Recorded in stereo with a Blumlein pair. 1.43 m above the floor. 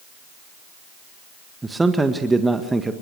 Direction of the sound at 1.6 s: 10° right.